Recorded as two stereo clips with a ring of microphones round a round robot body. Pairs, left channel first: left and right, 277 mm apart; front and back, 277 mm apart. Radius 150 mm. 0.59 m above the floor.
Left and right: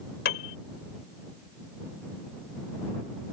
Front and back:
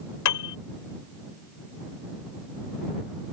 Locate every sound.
0.2 s a piano: 30° left